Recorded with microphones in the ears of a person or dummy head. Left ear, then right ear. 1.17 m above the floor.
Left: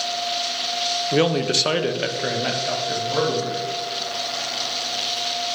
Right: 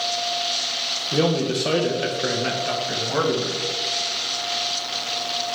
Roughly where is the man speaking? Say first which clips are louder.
Left 2 dB; left.